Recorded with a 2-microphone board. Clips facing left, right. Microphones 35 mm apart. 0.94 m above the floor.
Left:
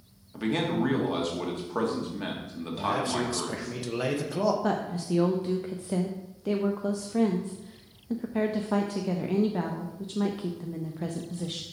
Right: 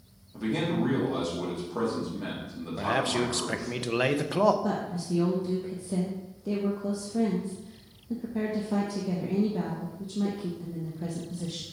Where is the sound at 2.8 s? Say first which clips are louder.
Right 1 dB; 45° right (ahead or behind), 0.7 m.